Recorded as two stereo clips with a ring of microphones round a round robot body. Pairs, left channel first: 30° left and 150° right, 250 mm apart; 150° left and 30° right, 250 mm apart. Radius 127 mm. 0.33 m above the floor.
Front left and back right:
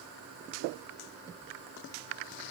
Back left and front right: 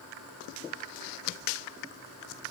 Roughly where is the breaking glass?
I don't hear breaking glass.